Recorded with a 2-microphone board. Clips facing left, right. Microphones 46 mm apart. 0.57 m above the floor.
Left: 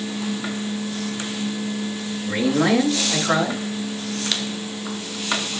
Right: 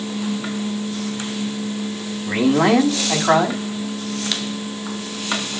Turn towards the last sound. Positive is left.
turn(degrees=-65)  # may be behind; listen again after turning